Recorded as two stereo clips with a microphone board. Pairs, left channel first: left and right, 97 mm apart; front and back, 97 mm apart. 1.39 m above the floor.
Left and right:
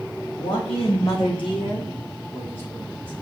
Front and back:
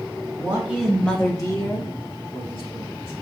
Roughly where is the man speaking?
Behind left.